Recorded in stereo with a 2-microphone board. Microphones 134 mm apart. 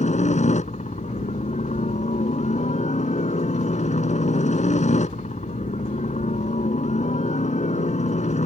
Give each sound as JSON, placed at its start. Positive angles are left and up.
{"t": 0.0, "sound": "a helicopter", "side_deg": 60}